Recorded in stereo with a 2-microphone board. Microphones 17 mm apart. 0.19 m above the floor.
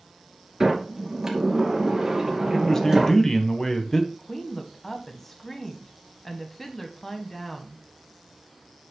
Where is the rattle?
No rattle in this recording.